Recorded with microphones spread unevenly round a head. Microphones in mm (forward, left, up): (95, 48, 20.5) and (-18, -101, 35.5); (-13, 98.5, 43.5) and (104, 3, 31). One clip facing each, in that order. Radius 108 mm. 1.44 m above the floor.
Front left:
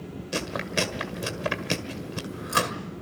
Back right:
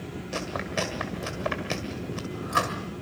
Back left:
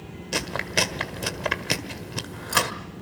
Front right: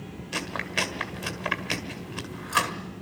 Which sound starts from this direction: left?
Chewing, at 0.3 s.